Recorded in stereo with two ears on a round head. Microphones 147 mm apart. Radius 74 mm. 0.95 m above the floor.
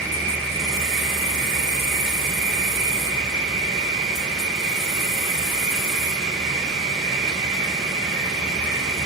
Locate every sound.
0.0 s an insect: 5° left (ahead or behind), 3 m